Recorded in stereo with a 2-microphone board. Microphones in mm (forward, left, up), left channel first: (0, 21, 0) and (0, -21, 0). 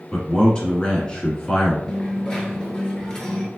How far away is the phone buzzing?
I don't hear a phone buzzing.